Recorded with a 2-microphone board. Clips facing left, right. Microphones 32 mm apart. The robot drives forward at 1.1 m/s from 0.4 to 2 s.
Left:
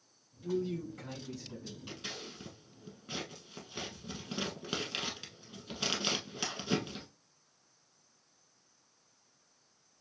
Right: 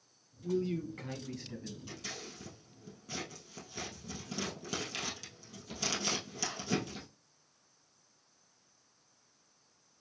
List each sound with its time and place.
0.4 s a man speaking: 35° right (ahead or behind), 3 m; by 1.8 s 45° right (ahead or behind), 2.5 m
1.9 s scissors: 30° left (ahead or behind), 1.8 m